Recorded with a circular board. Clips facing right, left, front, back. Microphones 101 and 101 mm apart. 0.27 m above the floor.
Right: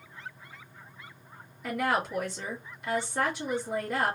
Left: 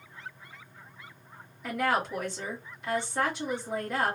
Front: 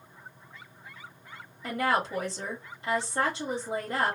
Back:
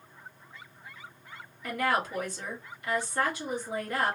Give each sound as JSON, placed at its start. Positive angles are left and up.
{"t": 1.6, "sound": "a woman speaking", "azimuth_deg": -5, "distance_m": 1.4}